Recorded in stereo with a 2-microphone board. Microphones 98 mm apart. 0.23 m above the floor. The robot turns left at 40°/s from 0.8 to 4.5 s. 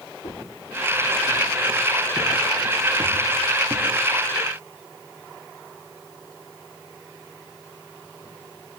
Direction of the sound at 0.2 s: 75° left (ahead or behind).